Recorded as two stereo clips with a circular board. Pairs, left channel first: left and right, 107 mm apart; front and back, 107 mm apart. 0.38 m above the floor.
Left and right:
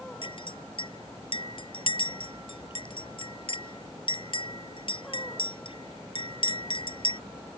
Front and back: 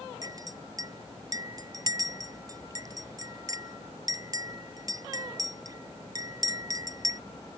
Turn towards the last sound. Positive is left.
turn(degrees=125)